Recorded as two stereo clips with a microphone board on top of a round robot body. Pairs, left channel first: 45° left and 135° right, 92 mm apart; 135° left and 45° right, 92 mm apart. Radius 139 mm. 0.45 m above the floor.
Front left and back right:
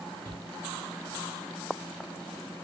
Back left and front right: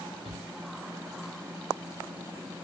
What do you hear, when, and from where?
0.2 s a shout: 120° left, 5.5 m